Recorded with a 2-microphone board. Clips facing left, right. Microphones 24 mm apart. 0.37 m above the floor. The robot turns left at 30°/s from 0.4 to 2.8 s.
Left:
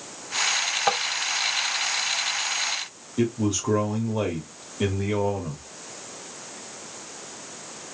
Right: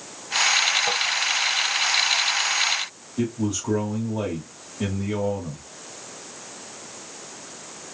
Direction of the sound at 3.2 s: 25° left (ahead or behind).